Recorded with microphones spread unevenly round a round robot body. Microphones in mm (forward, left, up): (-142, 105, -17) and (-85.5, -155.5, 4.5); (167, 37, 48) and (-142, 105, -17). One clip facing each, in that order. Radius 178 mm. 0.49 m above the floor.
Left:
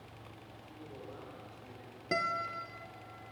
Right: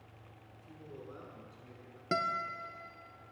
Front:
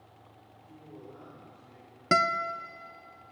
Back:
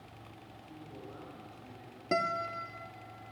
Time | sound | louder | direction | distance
0.5 | a man speaking | right 1 dB, front 1 dB | 145° right | 6 m
2.1 | a guitar | even, front 3 dB | 5° right | 0.6 m